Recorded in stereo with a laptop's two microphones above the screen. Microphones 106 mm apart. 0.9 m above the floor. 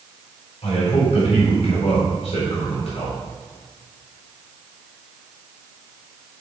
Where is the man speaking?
75° left (ahead or behind), 3.5 m.